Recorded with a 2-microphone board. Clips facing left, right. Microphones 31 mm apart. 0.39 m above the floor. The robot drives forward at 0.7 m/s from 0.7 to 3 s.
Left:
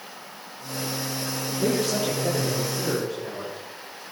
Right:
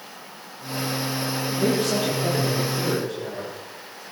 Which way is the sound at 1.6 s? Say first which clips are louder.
Right 1 dB; 65° right (ahead or behind).